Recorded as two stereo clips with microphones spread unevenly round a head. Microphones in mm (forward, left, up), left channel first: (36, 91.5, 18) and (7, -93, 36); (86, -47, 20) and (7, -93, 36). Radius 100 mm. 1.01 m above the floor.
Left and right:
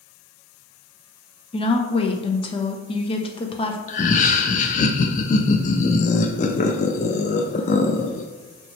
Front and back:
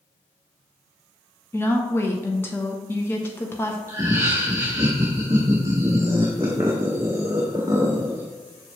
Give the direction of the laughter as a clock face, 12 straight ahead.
7 o'clock.